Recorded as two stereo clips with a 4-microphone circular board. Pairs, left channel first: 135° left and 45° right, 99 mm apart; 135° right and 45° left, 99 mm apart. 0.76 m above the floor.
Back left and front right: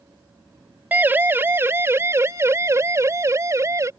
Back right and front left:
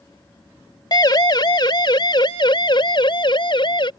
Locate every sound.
0.9 s a siren: 110° right; by 3.9 s 105° right